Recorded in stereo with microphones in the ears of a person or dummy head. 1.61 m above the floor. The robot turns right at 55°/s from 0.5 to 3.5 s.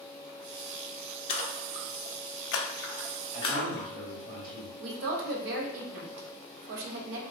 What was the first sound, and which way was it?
A splash, 35° left (ahead or behind).